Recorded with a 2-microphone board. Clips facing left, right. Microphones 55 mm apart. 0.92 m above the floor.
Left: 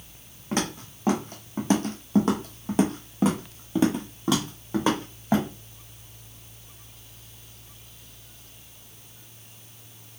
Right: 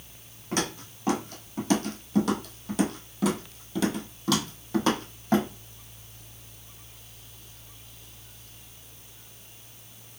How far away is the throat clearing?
No throat clearing in this recording.